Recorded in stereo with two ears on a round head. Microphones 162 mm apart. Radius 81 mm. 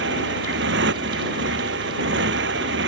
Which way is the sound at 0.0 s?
70° right (ahead or behind).